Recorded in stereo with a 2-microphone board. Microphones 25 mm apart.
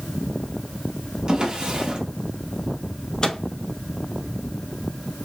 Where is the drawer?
35° right (ahead or behind), 1.1 m.